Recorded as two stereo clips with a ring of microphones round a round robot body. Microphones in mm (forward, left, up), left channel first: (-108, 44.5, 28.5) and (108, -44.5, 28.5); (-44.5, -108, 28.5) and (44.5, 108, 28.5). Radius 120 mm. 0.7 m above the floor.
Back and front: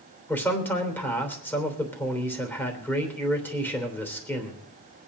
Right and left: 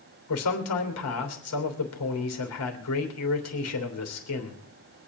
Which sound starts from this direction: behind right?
A man speaking, at 0.3 s.